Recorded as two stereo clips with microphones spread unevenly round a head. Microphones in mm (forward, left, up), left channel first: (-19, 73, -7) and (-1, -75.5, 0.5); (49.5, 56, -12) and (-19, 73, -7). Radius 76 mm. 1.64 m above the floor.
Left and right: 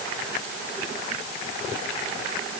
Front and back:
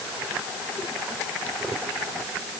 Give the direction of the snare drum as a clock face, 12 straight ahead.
No snare drum in this recording.